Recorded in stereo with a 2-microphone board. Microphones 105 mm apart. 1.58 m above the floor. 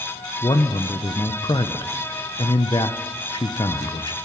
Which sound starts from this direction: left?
A man speaking, at 0.4 s.